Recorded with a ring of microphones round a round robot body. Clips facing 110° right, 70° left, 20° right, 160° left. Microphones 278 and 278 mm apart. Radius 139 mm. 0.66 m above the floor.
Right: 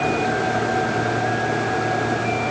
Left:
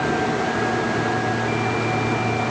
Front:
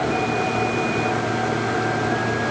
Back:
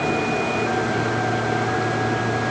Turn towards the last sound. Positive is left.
No sound to turn to.